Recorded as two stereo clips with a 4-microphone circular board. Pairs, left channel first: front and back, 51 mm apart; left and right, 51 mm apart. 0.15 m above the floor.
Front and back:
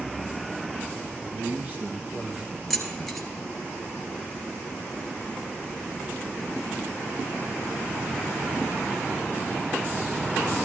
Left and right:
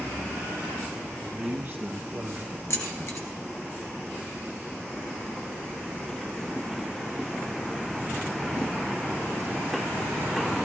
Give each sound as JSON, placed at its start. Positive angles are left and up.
{"t": 1.2, "sound": "a man speaking", "azimuth_deg": -150, "distance_m": 3.0}
{"t": 2.7, "sound": "keys jangling", "azimuth_deg": 85, "distance_m": 2.0}